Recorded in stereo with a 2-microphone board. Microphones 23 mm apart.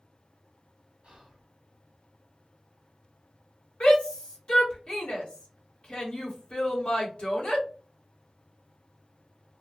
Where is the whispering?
45° right (ahead or behind), 1.1 m.